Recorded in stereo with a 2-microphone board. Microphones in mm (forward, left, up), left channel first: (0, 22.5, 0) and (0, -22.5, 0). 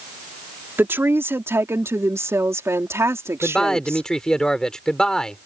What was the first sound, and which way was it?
A woman speaking, 55° right (ahead or behind).